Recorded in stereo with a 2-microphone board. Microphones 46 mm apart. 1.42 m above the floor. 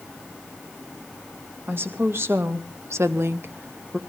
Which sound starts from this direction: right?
A woman speaking, at 1.7 s.